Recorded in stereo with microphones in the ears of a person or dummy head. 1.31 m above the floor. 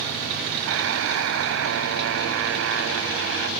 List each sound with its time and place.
0.7 s a buzzer: 85° right